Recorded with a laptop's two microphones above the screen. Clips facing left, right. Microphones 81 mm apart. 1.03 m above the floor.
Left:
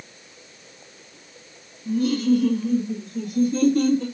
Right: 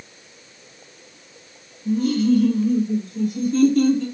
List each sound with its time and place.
1.9 s laughter: 5° right (ahead or behind), 1.6 m; by 4.0 s 55° left (ahead or behind), 3 m